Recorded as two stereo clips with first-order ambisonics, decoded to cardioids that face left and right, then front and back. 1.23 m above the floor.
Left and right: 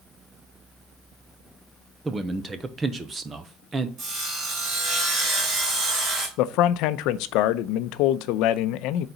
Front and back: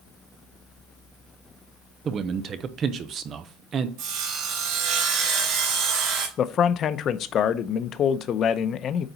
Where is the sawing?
150° right, 2.5 m.